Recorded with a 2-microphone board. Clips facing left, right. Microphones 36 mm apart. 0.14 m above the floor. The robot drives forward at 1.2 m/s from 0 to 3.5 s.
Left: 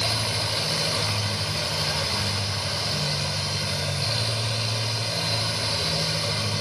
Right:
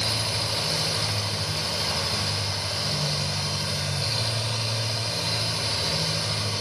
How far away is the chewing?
No chewing in this recording.